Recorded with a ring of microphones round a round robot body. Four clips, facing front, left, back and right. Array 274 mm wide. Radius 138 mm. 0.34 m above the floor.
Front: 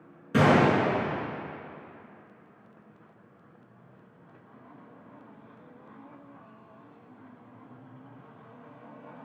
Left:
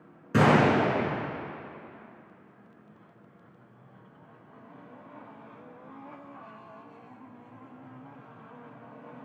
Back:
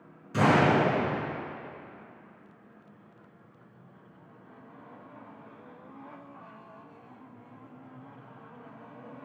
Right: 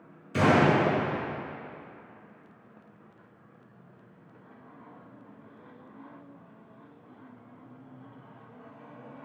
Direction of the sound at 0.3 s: 60° left.